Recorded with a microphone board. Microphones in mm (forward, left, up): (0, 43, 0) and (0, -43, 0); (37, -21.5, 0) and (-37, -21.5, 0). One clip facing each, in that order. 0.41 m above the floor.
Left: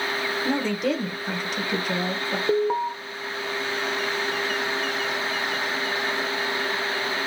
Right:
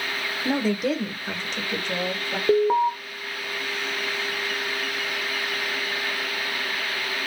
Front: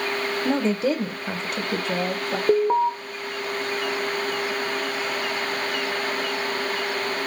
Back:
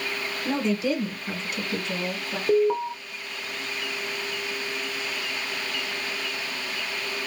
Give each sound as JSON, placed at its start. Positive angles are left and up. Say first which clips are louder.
{"t": 0.5, "sound": "a woman speaking", "louder": "right 2 dB, front 2 dB", "azimuth_deg": -20, "distance_m": 0.9}
{"t": 2.5, "sound": "an alarm", "louder": "right 4 dB, front 2 dB", "azimuth_deg": -20, "distance_m": 0.6}